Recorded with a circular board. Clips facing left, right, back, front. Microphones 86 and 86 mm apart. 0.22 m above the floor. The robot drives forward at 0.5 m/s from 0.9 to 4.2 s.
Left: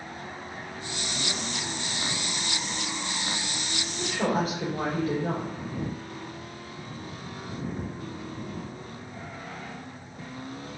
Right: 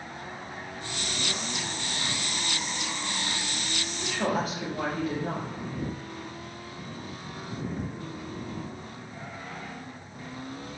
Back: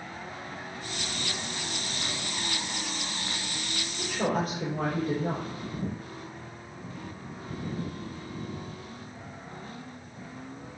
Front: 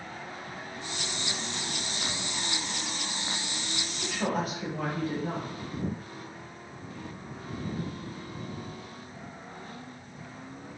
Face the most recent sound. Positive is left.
turn(degrees=145)